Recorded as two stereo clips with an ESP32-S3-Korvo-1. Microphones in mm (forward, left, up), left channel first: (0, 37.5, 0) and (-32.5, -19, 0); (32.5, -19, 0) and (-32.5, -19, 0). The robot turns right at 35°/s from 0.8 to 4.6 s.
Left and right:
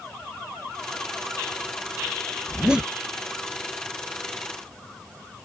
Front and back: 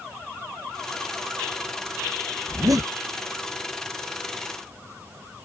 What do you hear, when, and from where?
2.5 s a zipper: 155° left; by 2.9 s 170° left